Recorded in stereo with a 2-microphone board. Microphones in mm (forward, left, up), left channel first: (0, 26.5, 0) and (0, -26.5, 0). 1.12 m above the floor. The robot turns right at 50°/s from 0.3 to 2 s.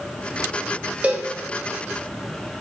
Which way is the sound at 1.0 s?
25° right (ahead or behind).